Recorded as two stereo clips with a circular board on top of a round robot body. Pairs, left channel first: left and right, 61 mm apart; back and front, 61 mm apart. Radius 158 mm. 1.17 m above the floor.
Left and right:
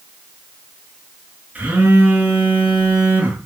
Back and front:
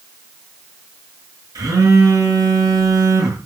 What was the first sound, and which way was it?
A phone buzzing, 25° right.